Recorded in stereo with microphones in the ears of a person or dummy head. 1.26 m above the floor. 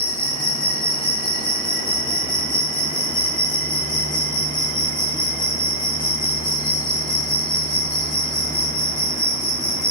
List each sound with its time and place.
0.0 s an insect: 45° left (ahead or behind), 0.7 m